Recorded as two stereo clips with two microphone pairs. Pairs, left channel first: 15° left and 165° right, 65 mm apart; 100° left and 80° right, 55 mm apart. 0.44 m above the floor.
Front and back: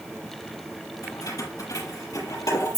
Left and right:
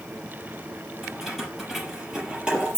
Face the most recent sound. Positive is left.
turn(degrees=-5)